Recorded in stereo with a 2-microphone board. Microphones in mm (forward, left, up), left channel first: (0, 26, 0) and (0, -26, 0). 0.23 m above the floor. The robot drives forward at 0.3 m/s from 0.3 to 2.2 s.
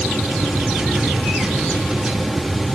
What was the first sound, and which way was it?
Only background noise.